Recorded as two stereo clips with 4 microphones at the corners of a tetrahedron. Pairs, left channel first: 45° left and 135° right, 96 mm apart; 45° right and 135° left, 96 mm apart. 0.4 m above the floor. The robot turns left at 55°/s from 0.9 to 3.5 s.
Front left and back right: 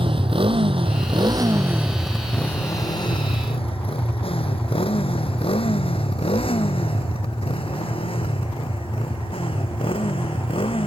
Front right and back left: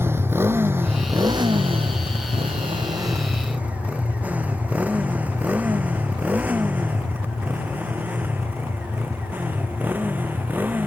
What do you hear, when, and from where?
0.0 s a motorcycle: 160° right; by 10.9 s 65° left